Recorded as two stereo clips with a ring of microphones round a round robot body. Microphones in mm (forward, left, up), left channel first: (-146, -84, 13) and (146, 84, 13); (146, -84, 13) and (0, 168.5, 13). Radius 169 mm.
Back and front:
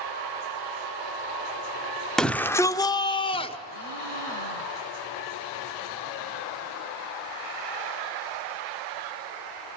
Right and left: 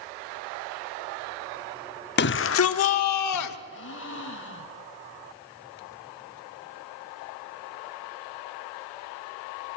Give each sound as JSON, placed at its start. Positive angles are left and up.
{"t": 2.2, "sound": "a shout", "azimuth_deg": -65, "distance_m": 0.8}
{"t": 3.7, "sound": "a gasp", "azimuth_deg": -120, "distance_m": 4.0}